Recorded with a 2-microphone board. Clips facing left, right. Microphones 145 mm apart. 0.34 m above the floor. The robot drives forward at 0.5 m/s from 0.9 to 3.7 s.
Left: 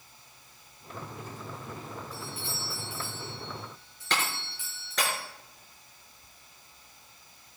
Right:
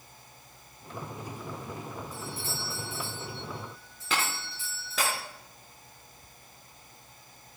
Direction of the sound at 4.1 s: 5° right (ahead or behind).